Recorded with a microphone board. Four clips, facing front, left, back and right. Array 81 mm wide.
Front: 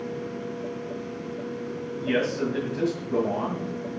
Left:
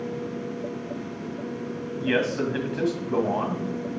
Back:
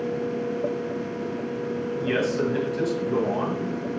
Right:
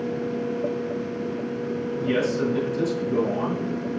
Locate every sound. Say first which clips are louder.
2.0 s a man speaking: even, even; 100° left, 2.5 m